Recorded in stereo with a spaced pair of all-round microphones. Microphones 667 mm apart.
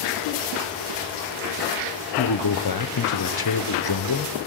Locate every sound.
2.2 s a man speaking: 40° left (ahead or behind), 0.5 m